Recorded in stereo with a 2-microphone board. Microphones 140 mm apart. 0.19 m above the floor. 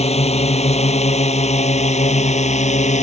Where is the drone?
50° left (ahead or behind); by 3.0 s 55° left (ahead or behind).